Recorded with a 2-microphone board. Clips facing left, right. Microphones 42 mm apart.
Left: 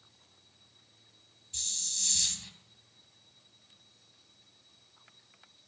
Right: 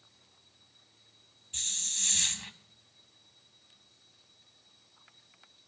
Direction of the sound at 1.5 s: 45° right (ahead or behind).